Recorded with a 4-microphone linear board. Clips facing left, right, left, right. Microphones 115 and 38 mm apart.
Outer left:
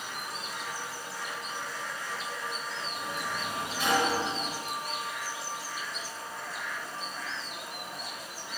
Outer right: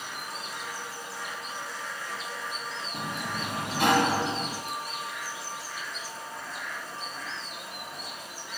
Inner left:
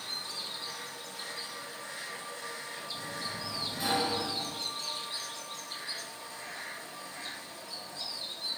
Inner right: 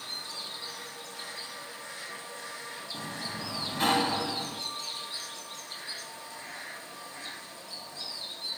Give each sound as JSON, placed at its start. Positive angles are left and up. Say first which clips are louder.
{"t": 2.9, "sound": "a sliding door", "louder": "outer right 2 dB, inner right 2 dB", "side_deg": -65, "distance_m": 1.0}